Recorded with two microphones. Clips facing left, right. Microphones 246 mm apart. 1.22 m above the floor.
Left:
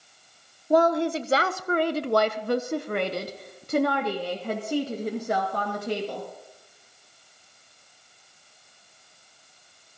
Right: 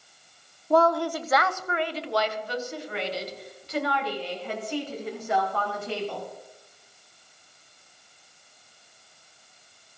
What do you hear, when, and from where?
0.7 s a woman speaking: 15° left (ahead or behind), 1.1 m; by 6.3 s 40° left (ahead or behind), 3 m